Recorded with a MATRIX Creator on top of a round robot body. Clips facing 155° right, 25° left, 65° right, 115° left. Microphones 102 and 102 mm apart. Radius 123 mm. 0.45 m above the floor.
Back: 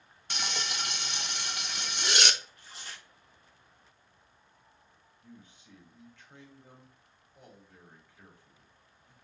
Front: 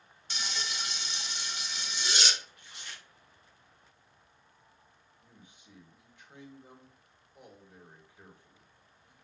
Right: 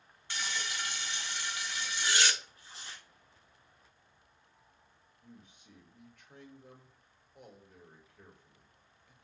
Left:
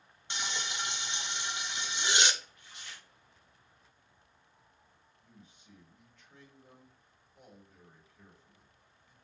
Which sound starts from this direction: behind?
Frying, at 0.3 s.